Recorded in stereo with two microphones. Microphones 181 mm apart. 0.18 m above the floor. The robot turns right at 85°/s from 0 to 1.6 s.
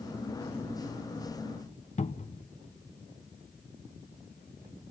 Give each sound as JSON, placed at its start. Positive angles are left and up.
{"t": 2.0, "sound": "a cupboard door", "side_deg": 40, "distance_m": 0.6}